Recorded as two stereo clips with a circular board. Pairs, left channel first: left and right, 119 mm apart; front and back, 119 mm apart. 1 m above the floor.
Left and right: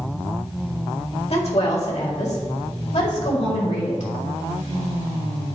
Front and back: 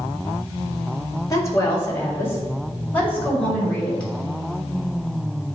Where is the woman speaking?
60° left, 1.7 m; by 4.1 s 80° left, 3 m.